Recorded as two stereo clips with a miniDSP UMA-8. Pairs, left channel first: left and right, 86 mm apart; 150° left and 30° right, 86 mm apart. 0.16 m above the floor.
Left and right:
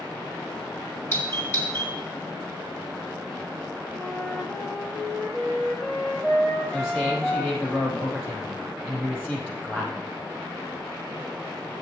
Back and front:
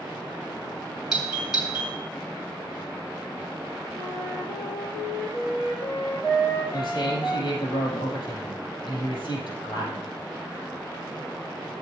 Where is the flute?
165° left, 5 m.